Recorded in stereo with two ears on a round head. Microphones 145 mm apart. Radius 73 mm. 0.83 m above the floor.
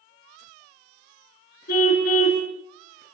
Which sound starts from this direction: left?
A car horn, at 1.7 s.